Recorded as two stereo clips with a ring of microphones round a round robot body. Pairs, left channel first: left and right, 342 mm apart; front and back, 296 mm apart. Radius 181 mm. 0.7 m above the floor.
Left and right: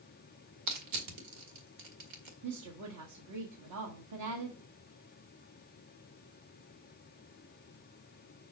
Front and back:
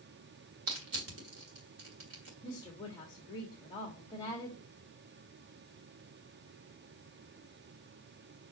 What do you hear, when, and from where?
0.7 s crushing: 130° right, 1.8 m
2.4 s a woman speaking: 75° right, 1.6 m